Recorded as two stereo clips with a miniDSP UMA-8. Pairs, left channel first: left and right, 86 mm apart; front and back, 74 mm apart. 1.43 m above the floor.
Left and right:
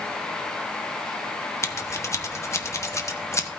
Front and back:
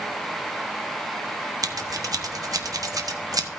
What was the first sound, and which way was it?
Scissors, 145° left.